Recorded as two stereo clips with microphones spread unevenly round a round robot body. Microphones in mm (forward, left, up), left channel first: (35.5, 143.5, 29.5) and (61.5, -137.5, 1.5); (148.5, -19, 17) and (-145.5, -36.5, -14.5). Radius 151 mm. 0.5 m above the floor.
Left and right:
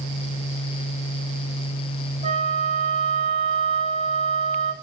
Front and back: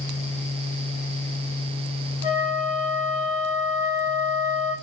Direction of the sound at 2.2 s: 15° right.